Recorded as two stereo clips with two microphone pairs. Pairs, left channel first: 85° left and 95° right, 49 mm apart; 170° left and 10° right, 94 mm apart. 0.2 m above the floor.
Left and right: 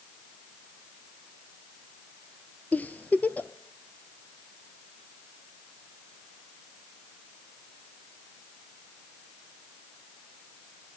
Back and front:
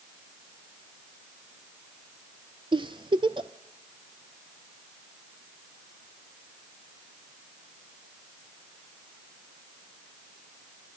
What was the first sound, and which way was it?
A giggle, 30° left.